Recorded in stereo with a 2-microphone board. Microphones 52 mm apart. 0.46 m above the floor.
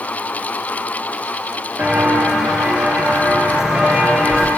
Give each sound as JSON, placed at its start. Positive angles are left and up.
{"t": 1.8, "sound": "footsteps", "side_deg": -30, "distance_m": 5.5}